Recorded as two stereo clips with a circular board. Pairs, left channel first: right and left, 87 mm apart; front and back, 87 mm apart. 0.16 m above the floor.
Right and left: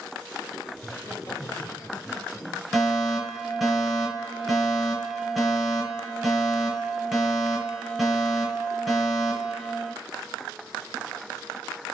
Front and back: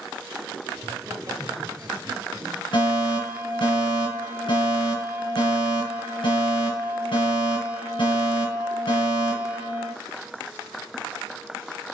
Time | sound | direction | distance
0.7 | laughter | 140° right | 3.5 m
2.7 | a fire alarm | 5° left | 6.5 m